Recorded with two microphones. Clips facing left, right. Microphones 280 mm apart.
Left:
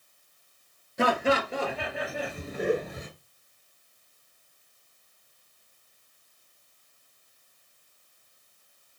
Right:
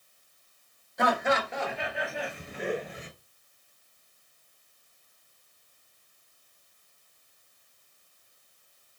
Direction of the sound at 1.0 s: 35° left (ahead or behind).